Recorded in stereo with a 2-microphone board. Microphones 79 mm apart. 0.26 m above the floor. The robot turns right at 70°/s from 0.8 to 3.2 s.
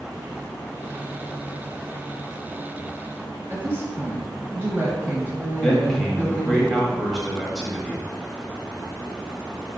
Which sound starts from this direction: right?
A woman speaking, at 3.5 s.